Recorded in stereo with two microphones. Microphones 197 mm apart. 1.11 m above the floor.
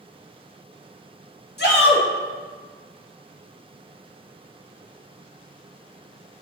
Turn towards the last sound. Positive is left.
turn(degrees=60)  # may be behind; listen again after turning